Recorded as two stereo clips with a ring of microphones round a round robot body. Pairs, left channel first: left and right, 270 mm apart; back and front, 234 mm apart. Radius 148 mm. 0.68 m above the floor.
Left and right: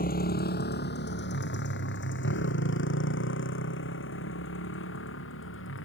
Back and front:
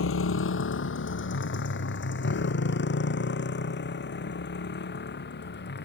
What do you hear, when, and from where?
0.0 s a motorcycle: 150° left; by 5.8 s 135° left